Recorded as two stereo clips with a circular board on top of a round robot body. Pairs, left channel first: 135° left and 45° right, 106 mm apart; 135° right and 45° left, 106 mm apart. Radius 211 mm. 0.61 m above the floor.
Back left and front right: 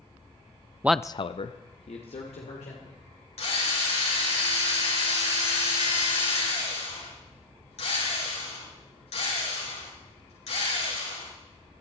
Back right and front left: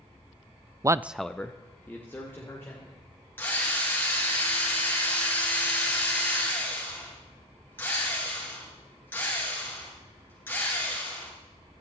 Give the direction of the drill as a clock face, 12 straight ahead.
7 o'clock.